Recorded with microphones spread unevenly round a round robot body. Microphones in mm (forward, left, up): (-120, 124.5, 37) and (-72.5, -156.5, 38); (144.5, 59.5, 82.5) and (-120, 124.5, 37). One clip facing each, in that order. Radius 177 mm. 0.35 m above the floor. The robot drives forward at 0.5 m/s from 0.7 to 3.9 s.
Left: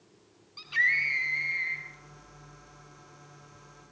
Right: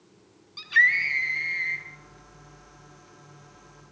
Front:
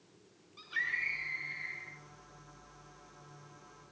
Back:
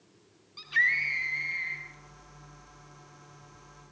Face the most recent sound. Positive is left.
turn(degrees=-155)